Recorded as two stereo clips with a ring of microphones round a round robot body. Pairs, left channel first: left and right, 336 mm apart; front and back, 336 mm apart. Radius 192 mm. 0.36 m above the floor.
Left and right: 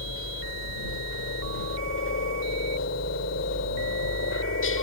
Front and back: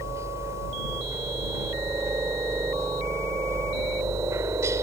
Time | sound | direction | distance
0.0 | a helicopter | 100° left | ?